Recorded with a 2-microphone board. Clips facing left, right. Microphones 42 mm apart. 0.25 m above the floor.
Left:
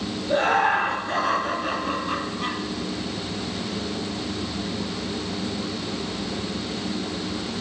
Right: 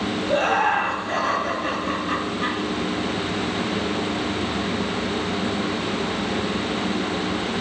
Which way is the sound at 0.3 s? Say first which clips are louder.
Even; 10° left (ahead or behind).